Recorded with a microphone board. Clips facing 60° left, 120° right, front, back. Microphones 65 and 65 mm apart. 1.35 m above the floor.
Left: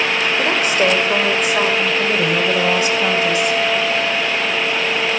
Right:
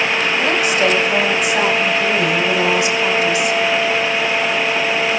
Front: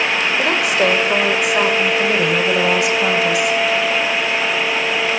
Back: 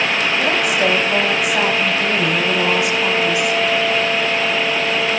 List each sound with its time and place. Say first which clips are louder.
0.4 s a woman speaking: even, front 1 dB; 5° left, 5.5 m